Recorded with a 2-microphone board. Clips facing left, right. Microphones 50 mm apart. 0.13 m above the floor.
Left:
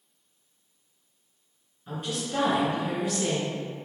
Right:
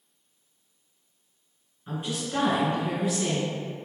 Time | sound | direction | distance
1.9 | a woman speaking | 15° right (ahead or behind) | 1.9 m